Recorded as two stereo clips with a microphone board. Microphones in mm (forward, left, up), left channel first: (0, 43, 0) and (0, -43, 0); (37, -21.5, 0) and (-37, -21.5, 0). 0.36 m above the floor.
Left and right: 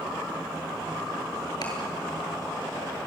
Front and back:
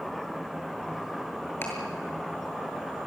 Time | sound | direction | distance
1.6 | ticking | 60° left | 6.5 m